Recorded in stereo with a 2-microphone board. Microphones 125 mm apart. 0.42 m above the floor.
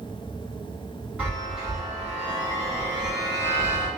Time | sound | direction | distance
1.2 | a chime | 10° right (ahead or behind) | 1.7 m